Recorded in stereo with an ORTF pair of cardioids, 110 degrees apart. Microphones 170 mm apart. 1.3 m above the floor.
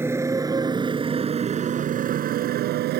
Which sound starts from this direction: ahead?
A motorcycle, at 0.0 s.